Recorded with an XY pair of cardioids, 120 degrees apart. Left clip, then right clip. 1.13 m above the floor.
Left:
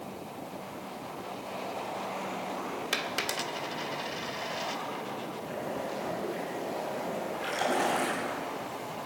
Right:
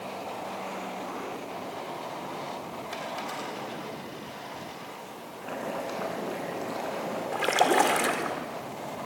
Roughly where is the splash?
Ahead right.